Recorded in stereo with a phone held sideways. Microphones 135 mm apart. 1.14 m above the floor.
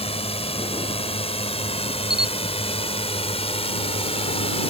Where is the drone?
50° left (ahead or behind).